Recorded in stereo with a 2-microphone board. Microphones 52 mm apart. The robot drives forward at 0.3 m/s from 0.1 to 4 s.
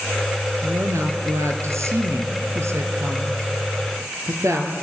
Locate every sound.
0.6 s a woman speaking: 65° right (ahead or behind), 3 m; by 4.7 s 60° right (ahead or behind), 3 m